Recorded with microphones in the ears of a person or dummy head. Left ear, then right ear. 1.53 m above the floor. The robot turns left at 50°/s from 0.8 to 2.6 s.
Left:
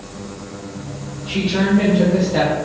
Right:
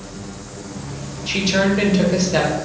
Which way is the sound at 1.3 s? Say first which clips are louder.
Right 2 dB; 30° right.